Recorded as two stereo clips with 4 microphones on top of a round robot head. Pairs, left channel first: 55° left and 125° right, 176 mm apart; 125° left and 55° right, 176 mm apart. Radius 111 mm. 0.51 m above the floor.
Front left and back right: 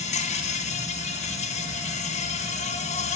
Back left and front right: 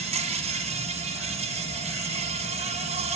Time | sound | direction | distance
0.0 | an insect | straight ahead | 1.5 m